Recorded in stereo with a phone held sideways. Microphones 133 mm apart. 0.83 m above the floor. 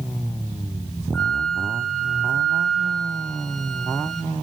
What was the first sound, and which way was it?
A flute, 5° left (ahead or behind).